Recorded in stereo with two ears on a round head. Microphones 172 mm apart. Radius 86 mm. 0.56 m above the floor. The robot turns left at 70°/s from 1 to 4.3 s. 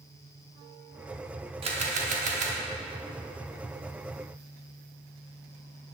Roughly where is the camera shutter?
Ahead right.